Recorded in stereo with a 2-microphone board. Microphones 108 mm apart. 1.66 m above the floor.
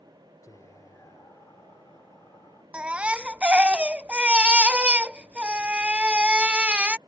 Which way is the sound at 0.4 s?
30° left (ahead or behind).